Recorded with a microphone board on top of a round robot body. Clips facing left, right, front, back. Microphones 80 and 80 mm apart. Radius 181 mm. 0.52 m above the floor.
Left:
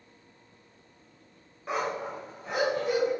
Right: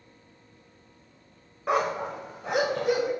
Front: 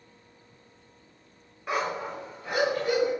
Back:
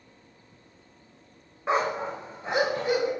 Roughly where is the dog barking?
Behind right.